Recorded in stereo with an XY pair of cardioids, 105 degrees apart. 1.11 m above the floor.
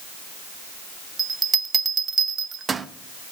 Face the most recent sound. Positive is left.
turn(degrees=-30)